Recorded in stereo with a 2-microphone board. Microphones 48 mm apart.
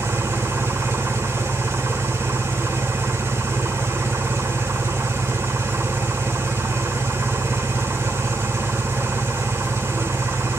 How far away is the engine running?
About 2.5 m.